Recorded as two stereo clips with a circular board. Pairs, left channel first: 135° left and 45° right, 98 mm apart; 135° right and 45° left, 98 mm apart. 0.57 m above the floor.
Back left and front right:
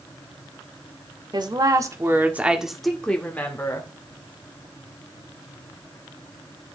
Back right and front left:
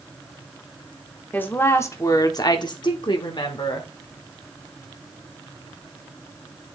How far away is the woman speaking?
About 1.6 m.